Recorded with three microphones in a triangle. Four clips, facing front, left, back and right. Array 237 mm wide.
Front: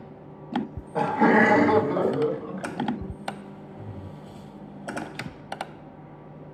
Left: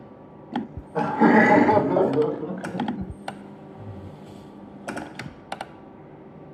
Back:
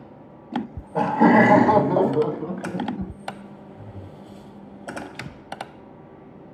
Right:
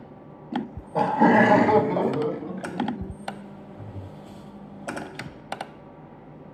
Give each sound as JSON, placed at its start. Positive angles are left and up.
{"t": 0.5, "sound": "laughter", "azimuth_deg": -100, "distance_m": 1.6}